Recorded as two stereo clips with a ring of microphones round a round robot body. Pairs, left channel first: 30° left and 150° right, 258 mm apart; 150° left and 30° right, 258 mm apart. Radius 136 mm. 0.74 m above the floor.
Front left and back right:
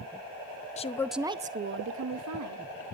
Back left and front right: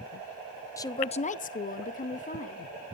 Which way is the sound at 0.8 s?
80° left.